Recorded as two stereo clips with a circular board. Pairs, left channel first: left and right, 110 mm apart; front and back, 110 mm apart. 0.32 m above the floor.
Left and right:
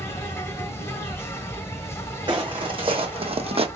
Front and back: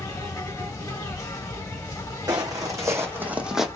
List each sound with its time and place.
0.0 s an insect: 40° left, 1.0 m
2.3 s footsteps: 130° right, 1.1 m; by 3.7 s 90° right, 0.7 m